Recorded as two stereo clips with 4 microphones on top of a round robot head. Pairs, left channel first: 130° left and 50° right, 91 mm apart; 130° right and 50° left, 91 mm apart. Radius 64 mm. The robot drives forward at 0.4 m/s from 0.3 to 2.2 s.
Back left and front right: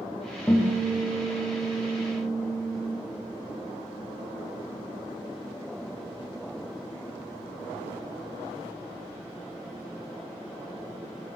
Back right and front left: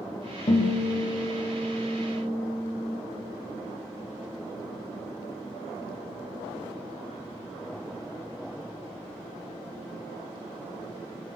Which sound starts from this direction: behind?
A guitar, at 0.5 s.